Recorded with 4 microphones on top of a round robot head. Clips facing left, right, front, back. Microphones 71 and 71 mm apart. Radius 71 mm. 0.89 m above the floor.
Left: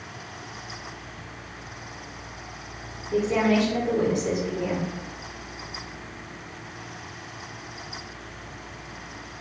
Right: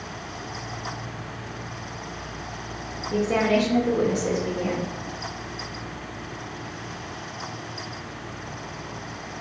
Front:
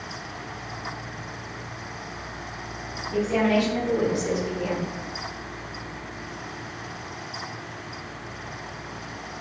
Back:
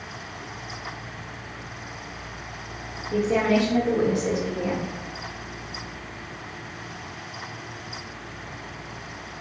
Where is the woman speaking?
115° right, 1.3 m.